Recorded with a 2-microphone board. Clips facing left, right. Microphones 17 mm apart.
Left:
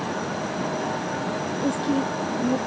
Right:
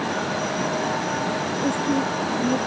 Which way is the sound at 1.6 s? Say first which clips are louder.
Right 1 dB; 10° left (ahead or behind).